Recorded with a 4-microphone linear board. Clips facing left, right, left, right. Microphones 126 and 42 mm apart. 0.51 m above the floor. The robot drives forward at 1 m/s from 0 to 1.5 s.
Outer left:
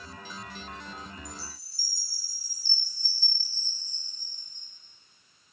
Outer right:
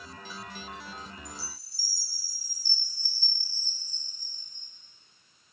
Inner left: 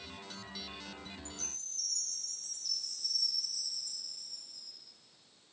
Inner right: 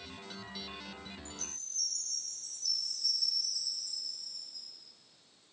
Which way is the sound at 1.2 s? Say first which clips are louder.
Outer left 1 dB, inner right 1 dB; 45° left (ahead or behind).